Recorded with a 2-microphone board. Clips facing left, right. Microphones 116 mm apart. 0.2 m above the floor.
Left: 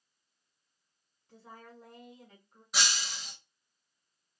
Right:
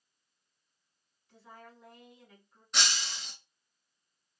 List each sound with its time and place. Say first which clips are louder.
1.3 s a woman speaking: left 1 dB; 40° left (ahead or behind), 1.8 m
2.7 s breaking glass: even; 5° left (ahead or behind), 1.1 m